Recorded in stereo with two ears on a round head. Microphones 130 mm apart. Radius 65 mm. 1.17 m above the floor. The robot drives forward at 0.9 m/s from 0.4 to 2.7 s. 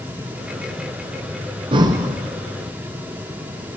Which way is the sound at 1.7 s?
35° right (ahead or behind).